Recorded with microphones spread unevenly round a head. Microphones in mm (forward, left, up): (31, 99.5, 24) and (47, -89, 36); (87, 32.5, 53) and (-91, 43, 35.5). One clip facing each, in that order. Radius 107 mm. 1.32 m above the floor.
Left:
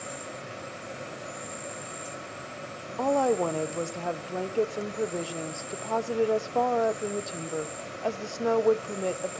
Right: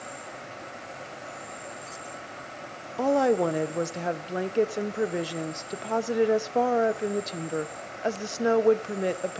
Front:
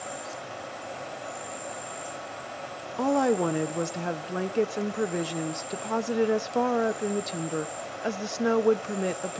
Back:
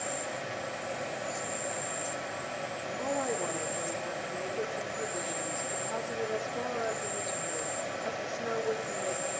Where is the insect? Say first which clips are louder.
Left 2 dB, back 1 dB; 115° left, 1.4 m.